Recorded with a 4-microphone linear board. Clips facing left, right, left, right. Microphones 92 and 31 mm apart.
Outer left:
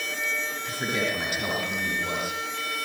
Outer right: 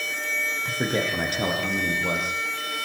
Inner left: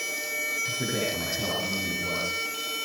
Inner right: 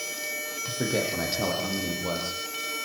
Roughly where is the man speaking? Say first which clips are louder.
Outer right 3 dB, inner right 1 dB; right.